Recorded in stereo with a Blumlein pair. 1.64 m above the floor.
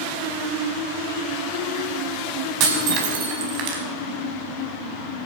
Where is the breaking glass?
40° right, 5 m.